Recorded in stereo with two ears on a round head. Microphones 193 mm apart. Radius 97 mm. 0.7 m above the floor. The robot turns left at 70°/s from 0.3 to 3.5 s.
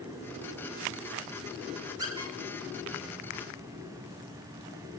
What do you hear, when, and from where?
2.0 s a squeak: 20° right (ahead or behind), 7 m; by 2.3 s 40° right (ahead or behind), 7 m